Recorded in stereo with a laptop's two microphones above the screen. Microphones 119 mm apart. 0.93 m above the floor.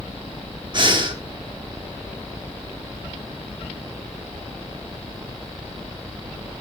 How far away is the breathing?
About 0.9 m.